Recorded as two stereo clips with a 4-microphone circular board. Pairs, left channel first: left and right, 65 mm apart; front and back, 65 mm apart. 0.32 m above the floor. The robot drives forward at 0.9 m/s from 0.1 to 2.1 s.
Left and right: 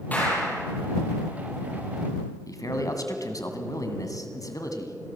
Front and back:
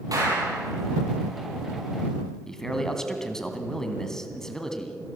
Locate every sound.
0.1 s a clap: 155° left, 7 m
2.5 s a man speaking: 80° left, 2.5 m